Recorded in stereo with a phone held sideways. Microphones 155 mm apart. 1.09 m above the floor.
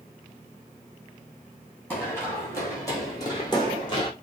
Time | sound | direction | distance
1.9 | running footsteps | 15° left (ahead or behind) | 4.5 m